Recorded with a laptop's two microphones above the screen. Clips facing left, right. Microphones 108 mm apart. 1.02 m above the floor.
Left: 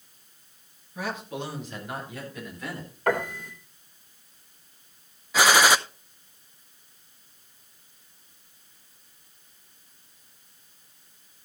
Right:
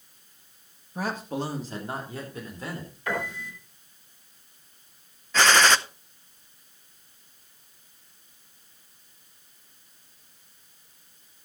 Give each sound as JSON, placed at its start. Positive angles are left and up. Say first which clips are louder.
{"t": 0.9, "sound": "a man speaking", "louder": "right 3 dB", "side_deg": -40, "distance_m": 1.8}
{"t": 3.1, "sound": "a piano", "louder": "left 5 dB", "side_deg": 55, "distance_m": 2.5}
{"t": 5.3, "sound": "a gunshot", "louder": "left 1 dB", "side_deg": 10, "distance_m": 0.6}